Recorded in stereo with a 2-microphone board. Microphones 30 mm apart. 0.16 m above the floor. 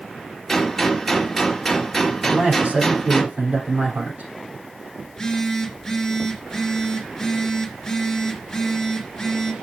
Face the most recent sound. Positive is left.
turn(degrees=10)  # may be behind; listen again after turning